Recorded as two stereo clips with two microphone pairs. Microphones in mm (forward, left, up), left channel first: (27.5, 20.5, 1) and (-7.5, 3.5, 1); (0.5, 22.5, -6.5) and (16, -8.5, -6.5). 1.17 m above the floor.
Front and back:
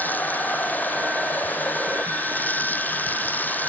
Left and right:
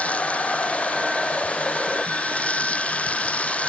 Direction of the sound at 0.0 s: 70° left.